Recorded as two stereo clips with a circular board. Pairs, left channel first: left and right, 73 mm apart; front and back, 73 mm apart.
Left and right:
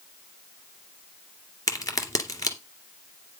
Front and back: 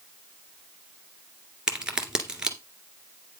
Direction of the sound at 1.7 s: 105° left.